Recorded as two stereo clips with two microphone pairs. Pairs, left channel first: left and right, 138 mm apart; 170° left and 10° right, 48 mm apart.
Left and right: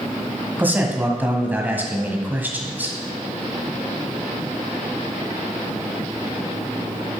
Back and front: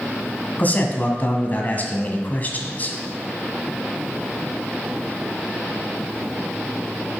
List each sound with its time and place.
0.6 s a man speaking: 160° right, 1.6 m